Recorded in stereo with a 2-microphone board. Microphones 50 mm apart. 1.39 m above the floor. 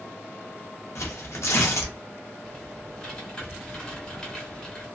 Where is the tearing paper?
65° left (ahead or behind), 0.7 m.